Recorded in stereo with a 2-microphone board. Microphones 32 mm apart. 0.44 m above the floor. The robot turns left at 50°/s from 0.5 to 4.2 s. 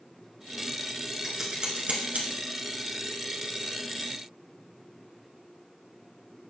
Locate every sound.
1.2 s scissors: 10° right (ahead or behind), 1.8 m; by 2.3 s 65° right (ahead or behind), 1.8 m